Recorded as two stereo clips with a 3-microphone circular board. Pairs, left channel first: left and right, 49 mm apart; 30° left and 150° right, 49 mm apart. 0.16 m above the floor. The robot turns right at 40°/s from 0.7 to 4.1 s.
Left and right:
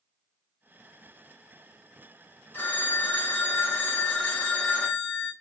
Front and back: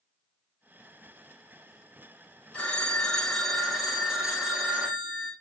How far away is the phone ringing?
About 1.5 m.